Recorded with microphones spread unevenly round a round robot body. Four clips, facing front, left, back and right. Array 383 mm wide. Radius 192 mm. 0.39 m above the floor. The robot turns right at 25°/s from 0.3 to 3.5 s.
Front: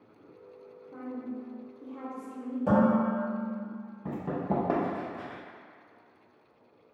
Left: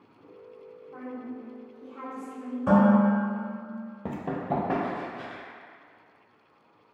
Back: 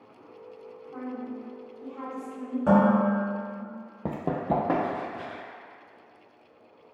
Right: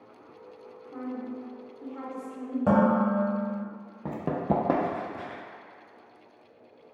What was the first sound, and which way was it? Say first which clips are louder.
A woman speaking: right 3 dB, back 2 dB; 85° right.